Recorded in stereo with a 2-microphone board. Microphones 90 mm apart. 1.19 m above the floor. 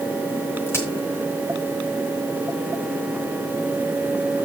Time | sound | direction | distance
0.7 | a crack | 30° left (ahead or behind) | 3.5 m